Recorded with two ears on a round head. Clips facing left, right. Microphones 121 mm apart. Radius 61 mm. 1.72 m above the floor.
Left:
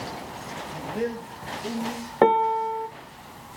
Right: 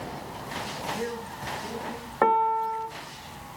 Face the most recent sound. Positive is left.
turn(degrees=30)  # may be behind; listen again after turning